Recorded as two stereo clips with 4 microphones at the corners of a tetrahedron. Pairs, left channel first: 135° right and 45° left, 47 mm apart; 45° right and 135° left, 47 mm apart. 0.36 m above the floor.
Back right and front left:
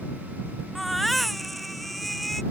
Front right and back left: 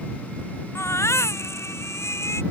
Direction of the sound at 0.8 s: 50° right.